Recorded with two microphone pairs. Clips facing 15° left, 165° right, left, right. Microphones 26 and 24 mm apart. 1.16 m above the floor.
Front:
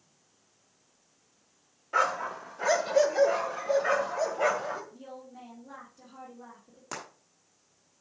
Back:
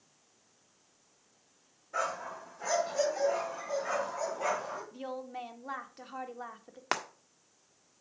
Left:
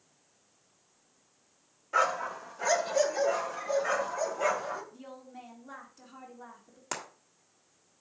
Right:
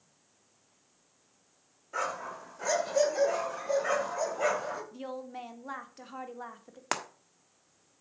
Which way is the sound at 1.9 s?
35° left.